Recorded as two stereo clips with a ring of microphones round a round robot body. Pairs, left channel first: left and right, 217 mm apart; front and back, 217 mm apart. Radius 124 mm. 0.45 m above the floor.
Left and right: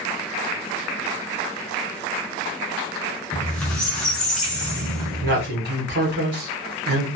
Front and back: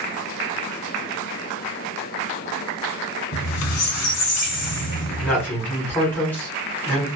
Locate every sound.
3.3 s a squeak: 5° left, 0.7 m
5.2 s a man speaking: 80° right, 1.4 m